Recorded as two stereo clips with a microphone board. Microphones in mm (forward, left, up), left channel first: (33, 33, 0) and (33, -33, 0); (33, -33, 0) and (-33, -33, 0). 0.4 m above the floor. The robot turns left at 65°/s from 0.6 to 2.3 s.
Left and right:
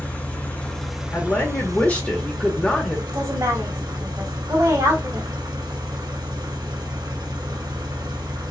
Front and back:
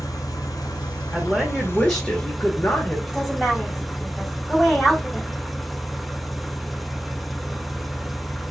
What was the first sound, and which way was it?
An engine running, 20° left.